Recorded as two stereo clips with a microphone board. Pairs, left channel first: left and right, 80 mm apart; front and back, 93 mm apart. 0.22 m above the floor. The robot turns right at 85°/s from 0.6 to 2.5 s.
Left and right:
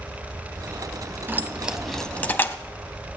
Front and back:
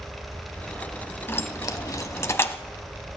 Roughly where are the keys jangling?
Ahead right.